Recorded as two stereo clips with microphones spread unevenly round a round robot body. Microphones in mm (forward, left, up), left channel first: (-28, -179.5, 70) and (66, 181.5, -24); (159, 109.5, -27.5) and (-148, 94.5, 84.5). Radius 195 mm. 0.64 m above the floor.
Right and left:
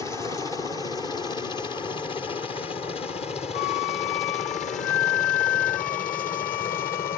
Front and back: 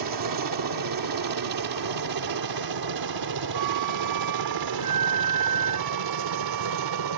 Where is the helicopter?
165° left; by 7.2 s straight behind.